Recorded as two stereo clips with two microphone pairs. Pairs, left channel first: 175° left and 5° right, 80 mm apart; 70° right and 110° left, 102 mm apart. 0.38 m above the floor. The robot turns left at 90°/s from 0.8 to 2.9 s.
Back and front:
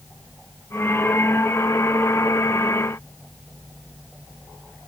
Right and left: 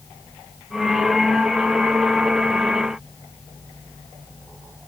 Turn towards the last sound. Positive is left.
No sound to turn to.